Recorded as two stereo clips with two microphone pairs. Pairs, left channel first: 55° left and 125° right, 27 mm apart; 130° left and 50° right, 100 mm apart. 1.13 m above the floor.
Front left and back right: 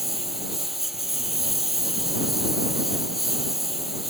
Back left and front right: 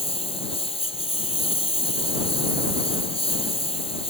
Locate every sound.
0.0 s a lawn mower: 155° left